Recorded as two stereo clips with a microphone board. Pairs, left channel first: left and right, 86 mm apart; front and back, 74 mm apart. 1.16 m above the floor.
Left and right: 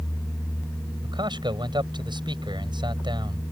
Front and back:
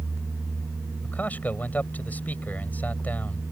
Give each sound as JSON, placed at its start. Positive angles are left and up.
{"t": 1.0, "sound": "a man speaking", "azimuth_deg": -70}